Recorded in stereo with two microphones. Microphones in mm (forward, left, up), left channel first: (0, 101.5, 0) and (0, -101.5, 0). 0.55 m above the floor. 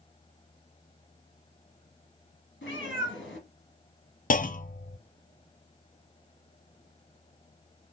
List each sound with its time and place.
2.6 s a cat meowing: 70° left (ahead or behind), 2.5 m
4.3 s a clunk: 45° left (ahead or behind), 0.5 m